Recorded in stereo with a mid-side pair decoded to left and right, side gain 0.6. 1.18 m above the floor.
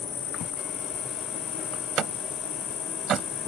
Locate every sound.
0.0 s an insect: 45° left
1.7 s a door slam: 45° right